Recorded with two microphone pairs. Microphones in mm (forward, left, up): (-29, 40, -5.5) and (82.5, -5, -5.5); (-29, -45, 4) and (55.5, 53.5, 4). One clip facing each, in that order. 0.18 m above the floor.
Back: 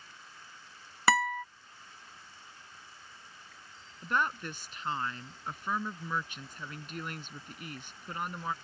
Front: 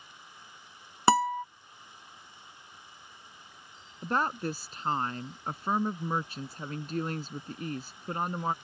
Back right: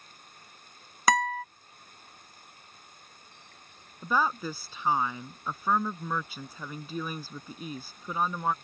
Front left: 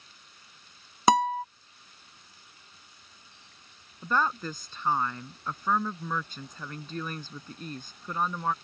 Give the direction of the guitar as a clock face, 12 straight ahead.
12 o'clock.